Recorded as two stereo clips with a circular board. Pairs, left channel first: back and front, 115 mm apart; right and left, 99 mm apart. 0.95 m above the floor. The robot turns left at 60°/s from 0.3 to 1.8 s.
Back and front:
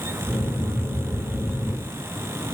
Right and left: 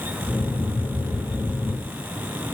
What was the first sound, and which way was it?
Only background noise.